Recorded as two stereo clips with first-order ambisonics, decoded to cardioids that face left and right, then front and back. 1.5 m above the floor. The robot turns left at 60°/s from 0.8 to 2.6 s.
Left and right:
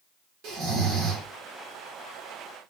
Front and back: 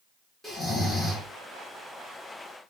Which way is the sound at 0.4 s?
80° right.